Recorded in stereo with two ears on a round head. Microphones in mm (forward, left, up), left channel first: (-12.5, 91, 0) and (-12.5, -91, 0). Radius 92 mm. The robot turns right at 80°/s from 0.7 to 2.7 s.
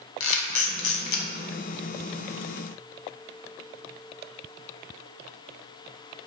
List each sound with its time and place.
0.2 s a camera shutter: 70° left (ahead or behind), 0.6 m; by 1.3 s 45° left (ahead or behind), 0.6 m